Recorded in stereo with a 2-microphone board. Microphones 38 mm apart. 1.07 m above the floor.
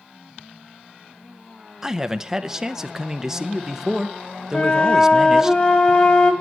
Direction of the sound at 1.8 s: 15° right (ahead or behind).